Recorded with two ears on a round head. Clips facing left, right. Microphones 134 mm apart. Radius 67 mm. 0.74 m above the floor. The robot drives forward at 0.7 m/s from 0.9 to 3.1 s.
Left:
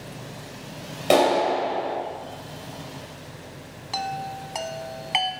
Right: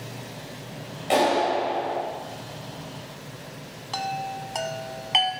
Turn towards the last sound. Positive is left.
turn(degrees=5)  # may be behind; listen again after turning